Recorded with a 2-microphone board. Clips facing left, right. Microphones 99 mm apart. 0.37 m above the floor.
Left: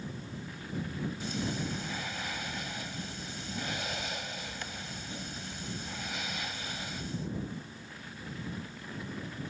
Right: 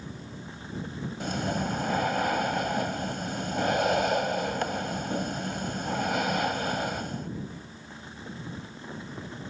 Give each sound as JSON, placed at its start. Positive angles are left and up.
{"t": 1.2, "sound": "breathing", "side_deg": -55}